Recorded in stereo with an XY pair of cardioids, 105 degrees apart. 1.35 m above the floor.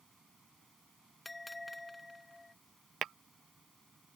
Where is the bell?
10° left.